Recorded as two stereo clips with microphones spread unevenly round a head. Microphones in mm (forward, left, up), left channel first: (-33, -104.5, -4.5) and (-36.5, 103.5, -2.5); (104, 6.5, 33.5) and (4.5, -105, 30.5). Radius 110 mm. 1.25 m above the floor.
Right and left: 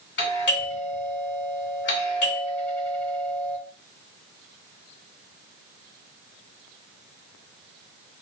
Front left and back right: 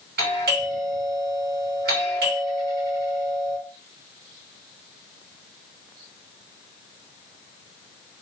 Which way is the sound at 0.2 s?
125° right.